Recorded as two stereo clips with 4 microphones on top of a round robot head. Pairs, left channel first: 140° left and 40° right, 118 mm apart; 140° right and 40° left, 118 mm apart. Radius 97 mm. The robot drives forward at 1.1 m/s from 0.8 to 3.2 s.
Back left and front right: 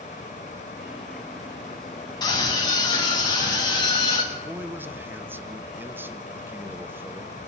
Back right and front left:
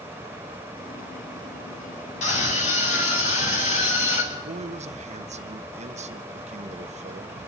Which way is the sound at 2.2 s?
160° right.